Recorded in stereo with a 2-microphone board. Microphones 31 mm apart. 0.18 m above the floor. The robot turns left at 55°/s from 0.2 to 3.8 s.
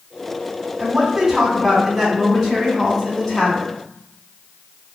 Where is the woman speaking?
20° right (ahead or behind), 1.5 m; by 3.7 s 20° left (ahead or behind), 1.5 m.